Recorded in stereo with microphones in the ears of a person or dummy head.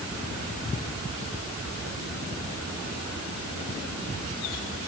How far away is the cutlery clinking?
I don't hear cutlery clinking.